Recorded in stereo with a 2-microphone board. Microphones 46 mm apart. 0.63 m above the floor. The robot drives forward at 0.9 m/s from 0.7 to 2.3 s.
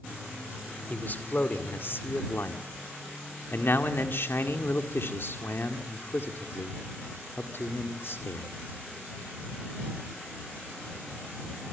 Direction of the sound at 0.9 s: 40° left (ahead or behind).